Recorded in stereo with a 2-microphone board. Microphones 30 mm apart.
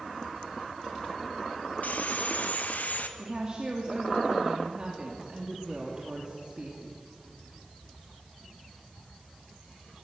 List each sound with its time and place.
1.8 s sawing: 65° left (ahead or behind), 1.6 m
3.2 s a woman speaking: 30° right (ahead or behind), 3 m